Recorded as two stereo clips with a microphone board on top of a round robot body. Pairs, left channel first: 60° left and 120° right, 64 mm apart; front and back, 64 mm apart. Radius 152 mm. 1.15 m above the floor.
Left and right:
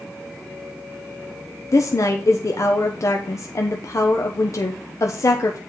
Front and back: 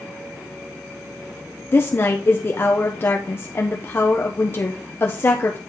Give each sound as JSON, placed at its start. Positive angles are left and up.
{"t": 1.7, "sound": "a woman speaking", "azimuth_deg": 45, "distance_m": 0.8}